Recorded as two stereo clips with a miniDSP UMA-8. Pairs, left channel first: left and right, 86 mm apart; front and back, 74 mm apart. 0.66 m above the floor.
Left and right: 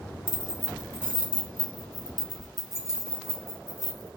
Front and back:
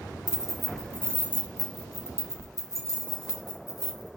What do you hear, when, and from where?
0.3 s keys jangling: 105° right, 1.0 m; by 4.1 s 35° right, 3 m